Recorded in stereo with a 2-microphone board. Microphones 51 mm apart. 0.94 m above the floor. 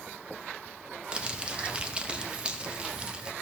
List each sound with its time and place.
1.1 s crumpling: 20° right (ahead or behind), 0.9 m